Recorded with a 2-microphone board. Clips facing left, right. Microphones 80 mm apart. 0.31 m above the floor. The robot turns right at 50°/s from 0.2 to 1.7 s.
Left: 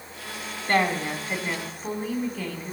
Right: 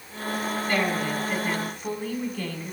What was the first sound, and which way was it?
A woman speaking, 120° left.